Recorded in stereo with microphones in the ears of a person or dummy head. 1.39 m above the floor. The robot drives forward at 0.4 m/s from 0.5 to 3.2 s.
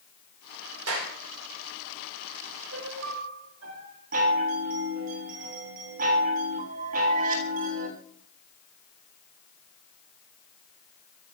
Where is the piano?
85° right, 4.5 m.